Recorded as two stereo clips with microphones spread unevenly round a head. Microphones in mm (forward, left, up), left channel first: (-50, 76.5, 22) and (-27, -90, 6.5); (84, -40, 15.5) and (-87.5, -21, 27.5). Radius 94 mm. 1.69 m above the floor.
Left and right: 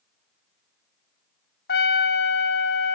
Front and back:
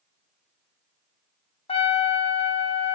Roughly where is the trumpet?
Ahead left.